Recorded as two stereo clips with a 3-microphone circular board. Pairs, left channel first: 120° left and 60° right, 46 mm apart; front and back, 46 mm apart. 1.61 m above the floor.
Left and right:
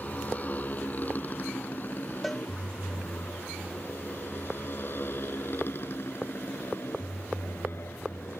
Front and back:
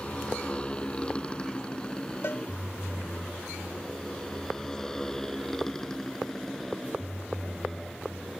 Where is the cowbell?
35° left.